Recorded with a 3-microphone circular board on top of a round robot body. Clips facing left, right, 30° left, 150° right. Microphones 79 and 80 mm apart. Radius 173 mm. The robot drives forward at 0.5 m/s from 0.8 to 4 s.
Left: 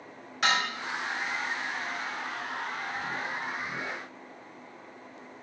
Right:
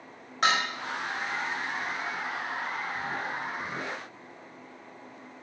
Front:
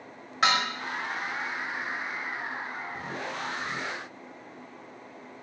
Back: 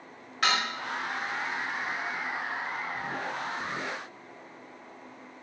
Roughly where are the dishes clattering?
Ahead right.